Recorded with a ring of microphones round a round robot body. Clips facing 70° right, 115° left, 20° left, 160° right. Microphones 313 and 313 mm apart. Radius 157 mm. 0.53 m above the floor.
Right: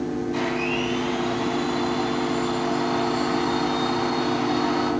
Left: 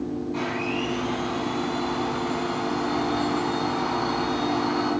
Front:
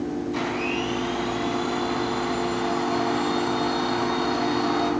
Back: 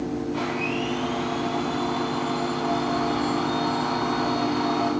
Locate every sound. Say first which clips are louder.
0.3 s a blender: right 3 dB, even; 20° right, 1.9 m